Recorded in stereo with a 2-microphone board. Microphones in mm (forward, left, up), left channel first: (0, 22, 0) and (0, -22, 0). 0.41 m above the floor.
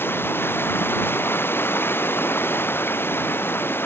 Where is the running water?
55° left (ahead or behind).